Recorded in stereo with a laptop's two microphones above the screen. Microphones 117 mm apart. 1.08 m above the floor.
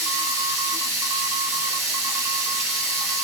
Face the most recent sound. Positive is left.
turn(degrees=-25)  # may be behind; listen again after turning